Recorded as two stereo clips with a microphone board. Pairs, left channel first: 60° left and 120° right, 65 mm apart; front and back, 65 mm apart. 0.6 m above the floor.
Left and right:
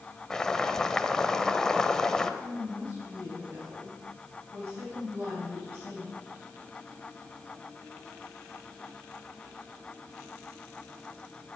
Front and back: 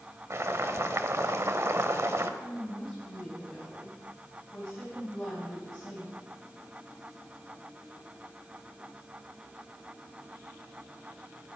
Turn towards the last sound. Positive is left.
turn(degrees=-75)